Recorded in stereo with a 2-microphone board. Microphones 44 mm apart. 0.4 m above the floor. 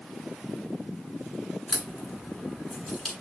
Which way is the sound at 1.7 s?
Centre (ahead or behind).